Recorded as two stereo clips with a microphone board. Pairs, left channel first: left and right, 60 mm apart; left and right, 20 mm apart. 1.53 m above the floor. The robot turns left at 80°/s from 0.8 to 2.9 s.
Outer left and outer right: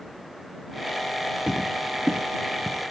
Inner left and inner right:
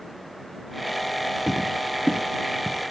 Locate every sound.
1.5 s footsteps: 10° right (ahead or behind); by 2.9 s 60° right (ahead or behind)